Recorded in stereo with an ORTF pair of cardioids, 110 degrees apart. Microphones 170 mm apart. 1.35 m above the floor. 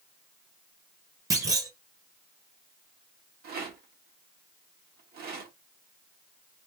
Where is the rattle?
65° right, 1.6 m.